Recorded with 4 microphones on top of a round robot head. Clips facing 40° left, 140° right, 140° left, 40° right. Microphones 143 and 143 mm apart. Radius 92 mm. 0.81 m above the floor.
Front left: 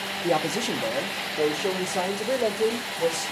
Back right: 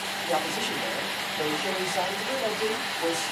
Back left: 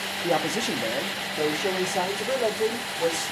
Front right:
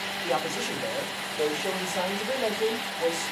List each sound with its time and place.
0.2 s a man speaking: 85° left, 1.2 m